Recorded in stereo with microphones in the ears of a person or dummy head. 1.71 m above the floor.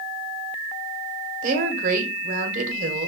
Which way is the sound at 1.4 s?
45° right (ahead or behind).